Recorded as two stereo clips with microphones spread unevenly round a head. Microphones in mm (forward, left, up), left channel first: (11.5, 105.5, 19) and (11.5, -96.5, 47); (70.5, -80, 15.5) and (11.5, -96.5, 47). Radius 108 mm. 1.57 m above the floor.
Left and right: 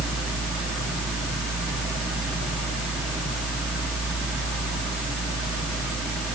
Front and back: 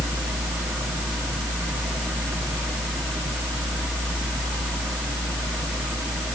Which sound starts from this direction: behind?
A fan, at 0.0 s.